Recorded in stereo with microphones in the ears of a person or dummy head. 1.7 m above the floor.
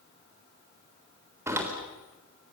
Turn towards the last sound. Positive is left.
turn(degrees=-10)  # may be behind; listen again after turning